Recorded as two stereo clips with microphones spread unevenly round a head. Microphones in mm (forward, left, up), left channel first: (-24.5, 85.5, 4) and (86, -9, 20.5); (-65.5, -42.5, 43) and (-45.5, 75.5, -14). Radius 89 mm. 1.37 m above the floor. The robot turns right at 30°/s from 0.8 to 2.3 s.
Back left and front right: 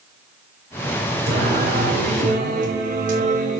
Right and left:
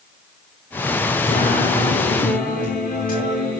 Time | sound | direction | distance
1.3 | singing | 50° right | 5.5 m